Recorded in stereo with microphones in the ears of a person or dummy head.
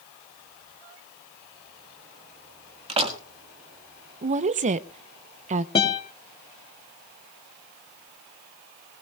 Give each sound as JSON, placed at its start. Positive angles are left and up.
{"t": 2.9, "sound": "a door slam", "side_deg": -35, "distance_m": 1.6}
{"t": 4.2, "sound": "a woman speaking", "side_deg": -40, "distance_m": 0.6}
{"t": 5.8, "sound": "a guitar", "side_deg": 25, "distance_m": 2.5}